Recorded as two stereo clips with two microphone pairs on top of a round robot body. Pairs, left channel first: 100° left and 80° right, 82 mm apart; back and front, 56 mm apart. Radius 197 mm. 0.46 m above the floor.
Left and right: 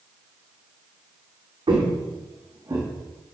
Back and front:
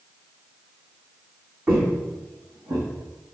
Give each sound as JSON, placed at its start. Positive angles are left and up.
{"t": 1.7, "sound": "footsteps", "azimuth_deg": -50, "distance_m": 2.0}